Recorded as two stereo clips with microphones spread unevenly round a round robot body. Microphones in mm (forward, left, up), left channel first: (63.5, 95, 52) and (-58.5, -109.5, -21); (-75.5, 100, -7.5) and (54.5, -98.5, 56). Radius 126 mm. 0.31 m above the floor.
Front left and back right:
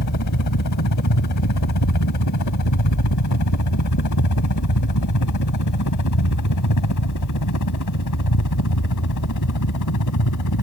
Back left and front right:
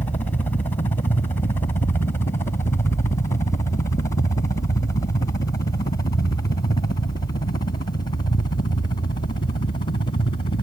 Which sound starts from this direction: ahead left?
A helicopter, at 0.0 s.